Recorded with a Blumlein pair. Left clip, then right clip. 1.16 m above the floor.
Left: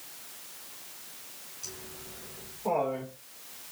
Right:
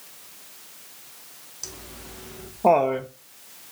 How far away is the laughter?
About 1.3 m.